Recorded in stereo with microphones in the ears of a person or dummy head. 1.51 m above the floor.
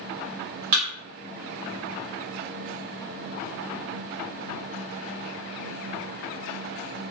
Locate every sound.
0.7 s a thud: 35° right (ahead or behind), 1.2 m